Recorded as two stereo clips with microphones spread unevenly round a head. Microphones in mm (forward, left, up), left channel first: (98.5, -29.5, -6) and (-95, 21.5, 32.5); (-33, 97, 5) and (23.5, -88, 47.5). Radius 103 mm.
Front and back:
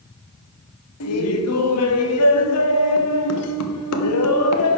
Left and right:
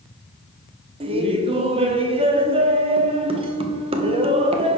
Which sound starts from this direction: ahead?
Laughter, at 1.0 s.